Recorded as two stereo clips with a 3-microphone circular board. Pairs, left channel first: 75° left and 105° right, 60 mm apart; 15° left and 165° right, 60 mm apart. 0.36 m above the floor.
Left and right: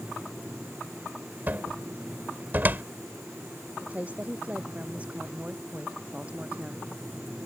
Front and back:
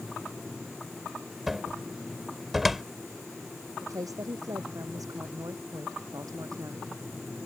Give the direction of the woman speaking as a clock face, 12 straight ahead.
6 o'clock.